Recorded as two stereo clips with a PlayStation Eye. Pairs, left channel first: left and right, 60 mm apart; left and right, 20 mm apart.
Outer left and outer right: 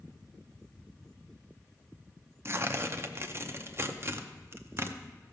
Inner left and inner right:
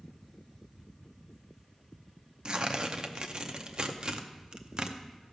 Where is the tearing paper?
40° right (ahead or behind), 0.6 m.